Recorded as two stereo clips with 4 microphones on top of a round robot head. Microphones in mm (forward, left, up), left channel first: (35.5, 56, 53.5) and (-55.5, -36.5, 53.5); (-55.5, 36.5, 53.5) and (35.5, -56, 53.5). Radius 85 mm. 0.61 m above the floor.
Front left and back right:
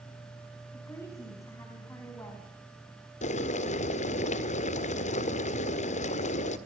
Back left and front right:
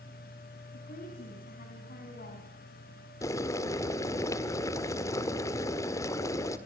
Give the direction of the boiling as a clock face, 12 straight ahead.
10 o'clock.